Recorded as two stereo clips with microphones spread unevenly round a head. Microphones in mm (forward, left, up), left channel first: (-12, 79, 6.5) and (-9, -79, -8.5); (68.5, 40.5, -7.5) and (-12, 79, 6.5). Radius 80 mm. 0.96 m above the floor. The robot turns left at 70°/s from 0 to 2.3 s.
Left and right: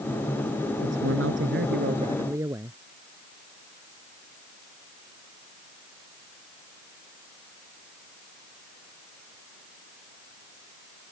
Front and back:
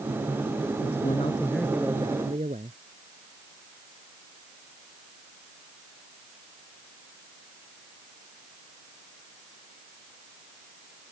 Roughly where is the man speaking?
Ahead right.